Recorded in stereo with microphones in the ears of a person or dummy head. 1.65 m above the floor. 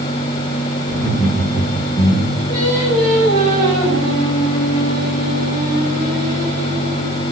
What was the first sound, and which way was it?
Laughter, centre (ahead or behind).